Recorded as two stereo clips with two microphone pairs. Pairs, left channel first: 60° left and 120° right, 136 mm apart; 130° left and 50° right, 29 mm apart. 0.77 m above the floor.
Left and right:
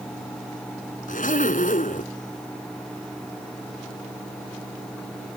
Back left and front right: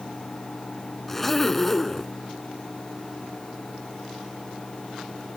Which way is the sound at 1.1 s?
50° left.